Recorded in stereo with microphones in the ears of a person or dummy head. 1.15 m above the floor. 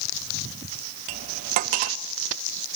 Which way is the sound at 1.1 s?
50° right (ahead or behind).